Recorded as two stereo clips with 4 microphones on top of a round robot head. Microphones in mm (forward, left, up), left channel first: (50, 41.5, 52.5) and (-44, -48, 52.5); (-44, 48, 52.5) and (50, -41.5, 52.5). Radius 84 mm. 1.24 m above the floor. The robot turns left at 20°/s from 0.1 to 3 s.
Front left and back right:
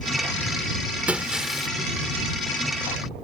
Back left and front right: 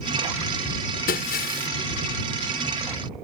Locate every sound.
1.1 s breaking glass: 145° left; by 1.7 s 130° left